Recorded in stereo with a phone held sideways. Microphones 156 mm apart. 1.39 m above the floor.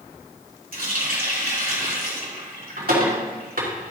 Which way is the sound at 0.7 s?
70° right (ahead or behind).